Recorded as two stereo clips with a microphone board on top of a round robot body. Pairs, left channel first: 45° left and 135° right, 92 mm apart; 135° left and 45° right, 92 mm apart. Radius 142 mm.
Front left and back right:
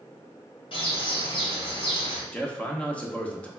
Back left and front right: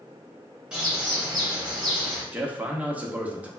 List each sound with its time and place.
0.7 s a bird: 35° left, 1.5 m
2.3 s a man speaking: 5° right, 0.9 m